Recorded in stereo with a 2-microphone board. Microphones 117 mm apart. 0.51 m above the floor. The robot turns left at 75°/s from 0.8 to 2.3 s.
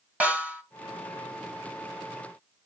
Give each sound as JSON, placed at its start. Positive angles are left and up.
{"t": 0.2, "sound": "a snare drum", "side_deg": -10, "distance_m": 1.9}